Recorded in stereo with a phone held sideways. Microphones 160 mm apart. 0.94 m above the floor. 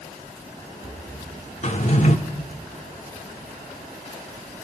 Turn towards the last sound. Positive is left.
turn(degrees=45)  # may be behind; listen again after turning